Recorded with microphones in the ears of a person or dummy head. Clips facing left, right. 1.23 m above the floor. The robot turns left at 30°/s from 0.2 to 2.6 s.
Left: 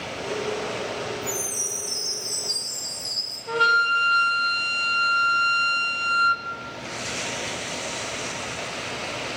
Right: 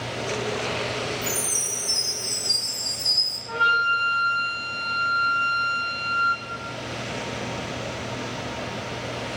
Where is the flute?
55° left (ahead or behind), 1.0 m.